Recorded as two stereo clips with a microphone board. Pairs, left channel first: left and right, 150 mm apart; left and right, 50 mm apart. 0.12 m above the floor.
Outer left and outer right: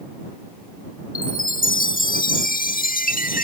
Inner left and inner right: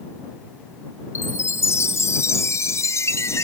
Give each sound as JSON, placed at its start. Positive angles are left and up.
{"t": 1.1, "sound": "a chime", "side_deg": 70}